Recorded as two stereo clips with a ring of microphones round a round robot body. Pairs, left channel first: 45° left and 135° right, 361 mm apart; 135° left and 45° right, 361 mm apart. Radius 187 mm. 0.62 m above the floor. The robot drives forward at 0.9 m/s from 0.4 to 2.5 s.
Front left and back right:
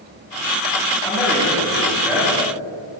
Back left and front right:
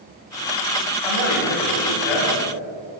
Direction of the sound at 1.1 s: 130° left.